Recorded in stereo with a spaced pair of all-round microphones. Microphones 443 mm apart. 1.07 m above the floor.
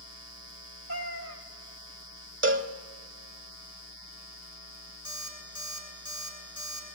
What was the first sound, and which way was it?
A cat meowing, 40° left (ahead or behind).